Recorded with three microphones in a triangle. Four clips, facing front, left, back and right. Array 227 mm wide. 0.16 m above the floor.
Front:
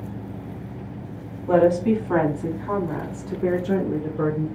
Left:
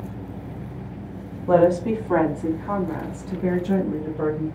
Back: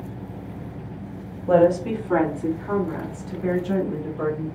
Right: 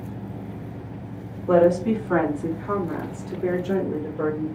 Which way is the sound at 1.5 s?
115° left.